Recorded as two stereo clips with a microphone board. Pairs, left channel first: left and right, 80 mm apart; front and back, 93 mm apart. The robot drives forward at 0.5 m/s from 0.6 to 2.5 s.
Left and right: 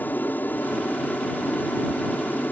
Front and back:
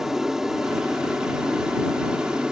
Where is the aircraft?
105° left; by 2.5 s 110° left.